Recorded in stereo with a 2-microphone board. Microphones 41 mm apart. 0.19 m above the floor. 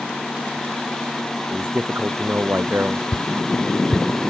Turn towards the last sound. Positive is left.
turn(degrees=40)  # may be behind; listen again after turning